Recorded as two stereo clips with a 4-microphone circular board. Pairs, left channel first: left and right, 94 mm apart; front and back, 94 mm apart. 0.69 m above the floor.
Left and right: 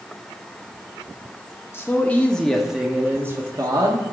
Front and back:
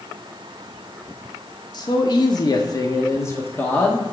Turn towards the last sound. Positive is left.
turn(degrees=-70)